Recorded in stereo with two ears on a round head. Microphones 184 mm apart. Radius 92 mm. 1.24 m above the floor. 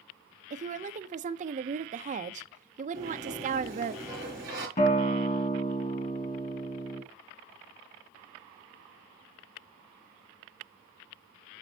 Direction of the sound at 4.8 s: 35° left (ahead or behind).